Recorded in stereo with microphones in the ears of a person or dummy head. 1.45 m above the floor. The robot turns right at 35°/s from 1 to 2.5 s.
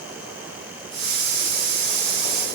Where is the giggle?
I don't hear a giggle.